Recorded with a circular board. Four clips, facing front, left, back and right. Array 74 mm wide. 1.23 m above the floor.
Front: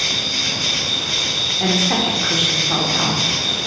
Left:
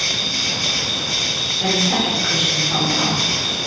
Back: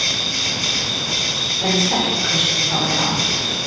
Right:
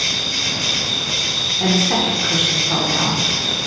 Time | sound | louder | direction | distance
0.0 | an insect | even, even | 60° right | 1.7 m
1.6 | a woman speaking | right 2 dB, even | 30° right | 0.9 m